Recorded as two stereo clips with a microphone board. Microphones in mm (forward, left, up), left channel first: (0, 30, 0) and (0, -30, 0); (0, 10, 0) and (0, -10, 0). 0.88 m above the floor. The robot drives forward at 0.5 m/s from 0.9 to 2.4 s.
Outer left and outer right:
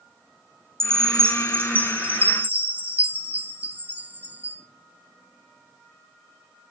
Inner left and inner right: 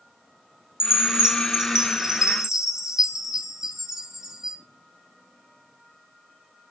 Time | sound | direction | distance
0.8 | a chime | 40° right (ahead or behind) | 1.4 m